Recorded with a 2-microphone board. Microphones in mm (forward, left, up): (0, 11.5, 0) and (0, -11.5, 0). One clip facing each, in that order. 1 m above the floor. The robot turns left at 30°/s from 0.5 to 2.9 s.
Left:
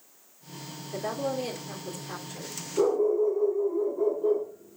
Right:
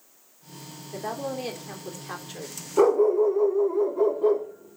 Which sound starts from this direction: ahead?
A woman speaking, at 0.9 s.